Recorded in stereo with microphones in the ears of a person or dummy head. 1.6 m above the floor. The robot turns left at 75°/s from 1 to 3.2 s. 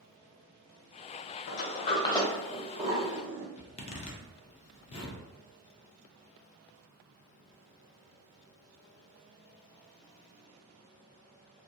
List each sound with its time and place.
1.5 s a sliding door: 50° left (ahead or behind), 0.5 m; by 3.5 s 40° right (ahead or behind), 0.5 m
3.6 s a zipper: 35° left (ahead or behind), 0.5 m